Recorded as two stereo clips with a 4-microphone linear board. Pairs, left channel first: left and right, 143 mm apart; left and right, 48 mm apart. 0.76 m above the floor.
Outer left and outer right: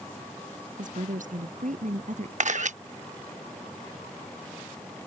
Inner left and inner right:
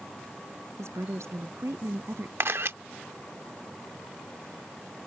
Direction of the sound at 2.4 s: 60° right (ahead or behind).